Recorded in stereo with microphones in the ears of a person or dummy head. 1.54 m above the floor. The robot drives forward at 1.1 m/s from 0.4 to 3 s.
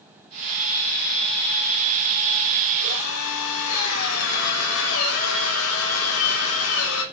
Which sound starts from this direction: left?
A drill, at 2.8 s.